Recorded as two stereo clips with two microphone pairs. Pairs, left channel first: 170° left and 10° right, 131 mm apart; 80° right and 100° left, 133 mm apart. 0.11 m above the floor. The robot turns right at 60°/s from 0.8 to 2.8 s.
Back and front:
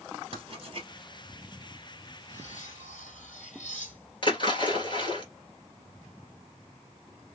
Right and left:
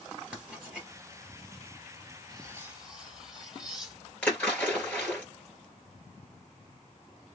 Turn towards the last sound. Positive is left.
turn(degrees=-160)